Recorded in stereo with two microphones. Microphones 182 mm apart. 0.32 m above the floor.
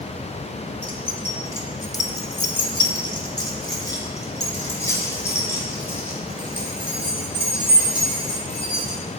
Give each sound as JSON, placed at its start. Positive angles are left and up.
{"t": 0.8, "sound": "keys jangling", "side_deg": 10, "distance_m": 1.2}